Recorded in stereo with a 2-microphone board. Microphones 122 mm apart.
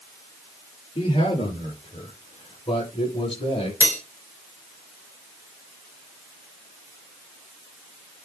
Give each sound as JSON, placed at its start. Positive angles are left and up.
{"t": 0.9, "sound": "a man speaking", "side_deg": 50, "distance_m": 6.0}
{"t": 3.8, "sound": "cutlery clinking", "side_deg": 20, "distance_m": 3.0}